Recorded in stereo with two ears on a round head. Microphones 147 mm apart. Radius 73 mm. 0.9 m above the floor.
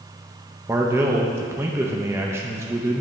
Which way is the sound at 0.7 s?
15° right (ahead or behind).